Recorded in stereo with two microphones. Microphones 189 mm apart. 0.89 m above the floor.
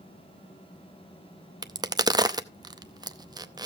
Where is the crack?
20° right (ahead or behind), 0.6 m.